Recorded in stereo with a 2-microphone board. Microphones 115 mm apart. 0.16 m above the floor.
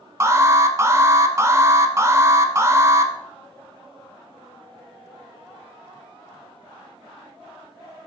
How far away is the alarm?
About 0.8 m.